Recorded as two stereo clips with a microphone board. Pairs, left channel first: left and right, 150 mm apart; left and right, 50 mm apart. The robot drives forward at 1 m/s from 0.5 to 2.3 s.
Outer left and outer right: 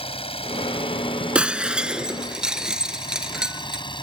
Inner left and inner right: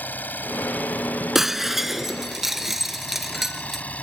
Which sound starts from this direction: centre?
Breaking glass, at 1.4 s.